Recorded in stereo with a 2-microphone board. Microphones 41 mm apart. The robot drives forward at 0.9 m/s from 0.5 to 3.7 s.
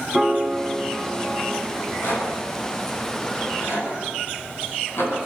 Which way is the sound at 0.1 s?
10° left (ahead or behind).